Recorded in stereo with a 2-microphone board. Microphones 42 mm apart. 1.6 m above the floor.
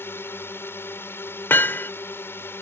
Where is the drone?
65° left (ahead or behind).